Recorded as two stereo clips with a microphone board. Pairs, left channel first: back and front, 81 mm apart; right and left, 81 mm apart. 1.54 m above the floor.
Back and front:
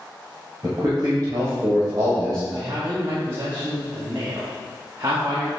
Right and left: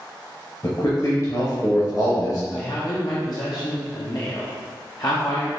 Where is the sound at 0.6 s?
45° right, 1.1 m.